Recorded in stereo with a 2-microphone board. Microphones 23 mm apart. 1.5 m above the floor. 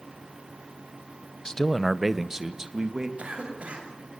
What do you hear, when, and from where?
1.4 s a man speaking: 30° left (ahead or behind), 0.8 m; by 3.1 s 35° right (ahead or behind), 2.5 m
3.2 s a cough: 80° right, 7.5 m